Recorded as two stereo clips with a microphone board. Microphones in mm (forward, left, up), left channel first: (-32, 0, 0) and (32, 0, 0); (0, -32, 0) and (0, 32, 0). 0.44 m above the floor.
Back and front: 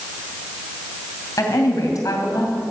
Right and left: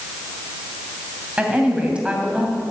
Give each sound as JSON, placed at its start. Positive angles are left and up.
{"t": 1.4, "sound": "a woman speaking", "azimuth_deg": 165, "distance_m": 2.5}